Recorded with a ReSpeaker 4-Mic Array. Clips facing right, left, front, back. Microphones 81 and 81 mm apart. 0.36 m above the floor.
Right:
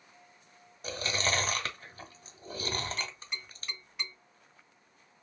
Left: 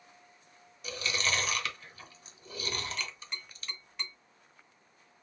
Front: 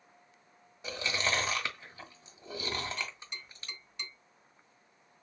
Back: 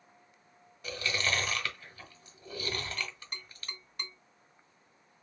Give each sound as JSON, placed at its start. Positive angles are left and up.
{"t": 0.8, "sound": "chewing", "azimuth_deg": -60, "distance_m": 1.0}
{"t": 3.0, "sound": "tapping", "azimuth_deg": -170, "distance_m": 1.5}